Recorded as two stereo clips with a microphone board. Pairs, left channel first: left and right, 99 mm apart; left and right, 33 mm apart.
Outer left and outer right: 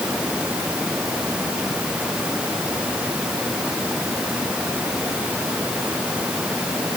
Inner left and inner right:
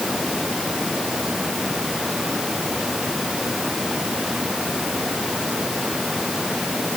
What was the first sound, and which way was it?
Only background noise.